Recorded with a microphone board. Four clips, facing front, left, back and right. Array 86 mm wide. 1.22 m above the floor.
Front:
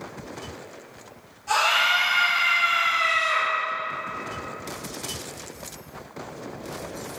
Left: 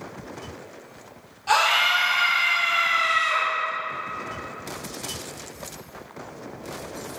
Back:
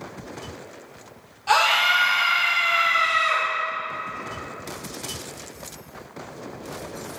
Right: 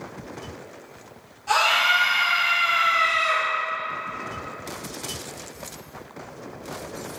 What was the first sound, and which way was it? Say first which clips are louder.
A scream: even, back 3 dB; 150° left.